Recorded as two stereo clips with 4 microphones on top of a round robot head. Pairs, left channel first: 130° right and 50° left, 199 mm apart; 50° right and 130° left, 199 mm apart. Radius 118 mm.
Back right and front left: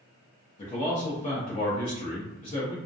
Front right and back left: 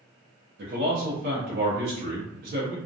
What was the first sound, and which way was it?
A man speaking, 170° left.